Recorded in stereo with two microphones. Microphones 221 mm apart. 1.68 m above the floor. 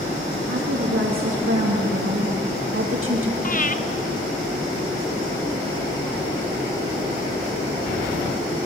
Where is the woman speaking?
75° right (ahead or behind), 3.5 m; by 3.3 s 65° right (ahead or behind), 2.5 m.